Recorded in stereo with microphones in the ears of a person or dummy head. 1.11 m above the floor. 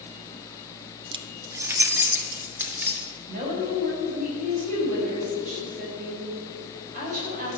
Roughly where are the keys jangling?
Right.